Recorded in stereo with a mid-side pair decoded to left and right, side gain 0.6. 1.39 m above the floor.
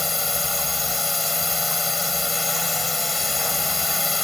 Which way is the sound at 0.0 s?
15° left.